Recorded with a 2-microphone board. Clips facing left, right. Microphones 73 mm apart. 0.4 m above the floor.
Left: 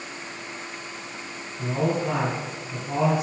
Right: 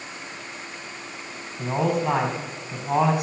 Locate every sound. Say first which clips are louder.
1.6 s a man speaking: right 2 dB; 70° right (ahead or behind), 3.5 m